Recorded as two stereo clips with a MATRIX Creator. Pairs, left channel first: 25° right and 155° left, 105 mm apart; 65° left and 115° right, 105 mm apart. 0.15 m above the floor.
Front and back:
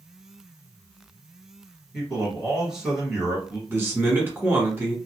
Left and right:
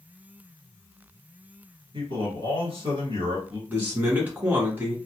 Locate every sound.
1.9 s a man speaking: 120° right, 1.6 m
3.7 s a man speaking: 160° right, 1.2 m